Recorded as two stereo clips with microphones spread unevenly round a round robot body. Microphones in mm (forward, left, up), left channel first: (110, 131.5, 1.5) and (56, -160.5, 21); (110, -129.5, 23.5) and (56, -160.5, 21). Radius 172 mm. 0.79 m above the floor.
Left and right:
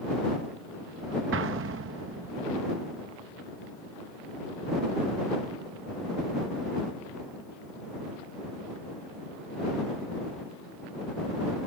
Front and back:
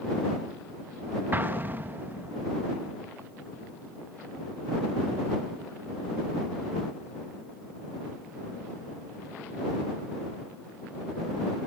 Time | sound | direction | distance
1.3 | an explosion | 120° right | ?